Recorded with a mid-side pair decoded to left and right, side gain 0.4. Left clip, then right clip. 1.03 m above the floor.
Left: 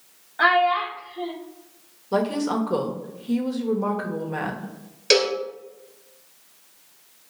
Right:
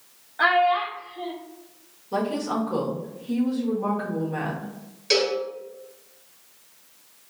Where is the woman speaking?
55° left, 1.1 m.